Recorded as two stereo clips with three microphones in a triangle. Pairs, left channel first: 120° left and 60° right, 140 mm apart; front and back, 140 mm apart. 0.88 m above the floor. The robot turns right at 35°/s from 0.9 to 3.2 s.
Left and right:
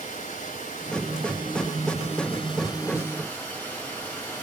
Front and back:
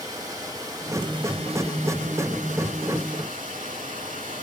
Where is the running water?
115° left, 2.5 m; by 4.4 s 165° right, 2.5 m.